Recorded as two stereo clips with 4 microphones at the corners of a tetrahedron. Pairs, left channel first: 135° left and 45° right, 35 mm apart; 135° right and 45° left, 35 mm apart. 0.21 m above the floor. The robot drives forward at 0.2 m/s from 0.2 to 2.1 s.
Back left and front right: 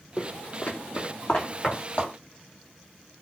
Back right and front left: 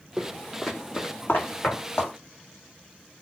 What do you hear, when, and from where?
0.2 s footsteps: 120° left, 0.6 m; by 2.1 s 170° right, 1.8 m